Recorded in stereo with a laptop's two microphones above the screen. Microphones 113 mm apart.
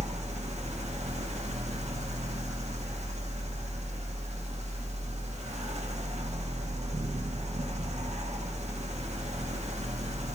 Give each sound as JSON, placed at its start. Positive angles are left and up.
{"t": 0.0, "sound": "a fan", "side_deg": -80, "distance_m": 0.9}